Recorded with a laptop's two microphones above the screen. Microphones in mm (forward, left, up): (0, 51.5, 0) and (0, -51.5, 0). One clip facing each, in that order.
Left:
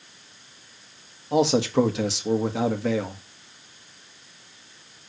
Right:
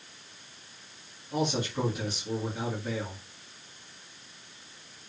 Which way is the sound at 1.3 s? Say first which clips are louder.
Left 10 dB; 75° left (ahead or behind).